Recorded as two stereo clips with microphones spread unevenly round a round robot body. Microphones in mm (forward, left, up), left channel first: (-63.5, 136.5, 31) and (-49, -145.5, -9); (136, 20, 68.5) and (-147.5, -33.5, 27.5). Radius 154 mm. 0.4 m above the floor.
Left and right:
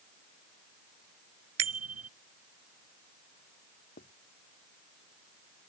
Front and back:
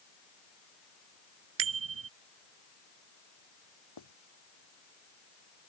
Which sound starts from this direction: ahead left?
Writing, at 4.0 s.